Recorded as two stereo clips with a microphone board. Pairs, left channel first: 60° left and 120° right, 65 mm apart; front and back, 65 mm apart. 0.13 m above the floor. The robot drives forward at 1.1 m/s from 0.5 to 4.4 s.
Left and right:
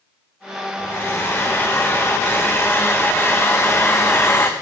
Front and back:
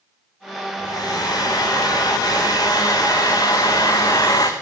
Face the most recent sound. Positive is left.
turn(degrees=10)